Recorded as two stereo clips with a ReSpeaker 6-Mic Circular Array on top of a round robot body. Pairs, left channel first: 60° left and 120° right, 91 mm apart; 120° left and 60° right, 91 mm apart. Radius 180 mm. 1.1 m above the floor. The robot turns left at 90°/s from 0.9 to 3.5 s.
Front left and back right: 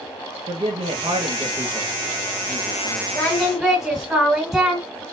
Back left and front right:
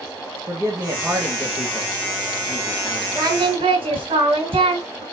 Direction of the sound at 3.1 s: Straight ahead.